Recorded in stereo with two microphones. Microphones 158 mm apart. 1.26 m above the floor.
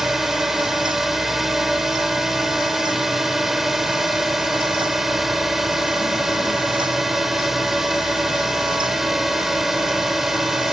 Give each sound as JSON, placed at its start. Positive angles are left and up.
{"t": 0.0, "sound": "a drone", "side_deg": 0}